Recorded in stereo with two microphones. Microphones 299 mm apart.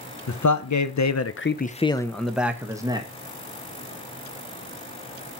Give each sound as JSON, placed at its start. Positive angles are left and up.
{"t": 0.3, "sound": "a man speaking", "side_deg": 70, "distance_m": 0.8}